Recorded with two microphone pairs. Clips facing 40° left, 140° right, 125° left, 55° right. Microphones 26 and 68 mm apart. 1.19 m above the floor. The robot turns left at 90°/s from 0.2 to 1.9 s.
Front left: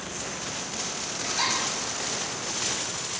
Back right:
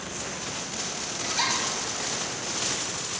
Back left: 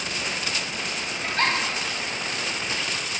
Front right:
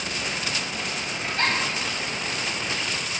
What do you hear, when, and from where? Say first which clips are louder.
1.2 s a giggle: even, back left 1 dB; 145° left, 1.7 m; by 1.5 s 120° left, 1.7 m